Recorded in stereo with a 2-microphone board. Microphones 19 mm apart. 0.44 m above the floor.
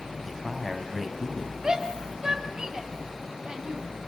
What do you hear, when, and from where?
0.2 s a man speaking: centre (ahead or behind), 3 m
1.6 s a shout: 40° right (ahead or behind), 3 m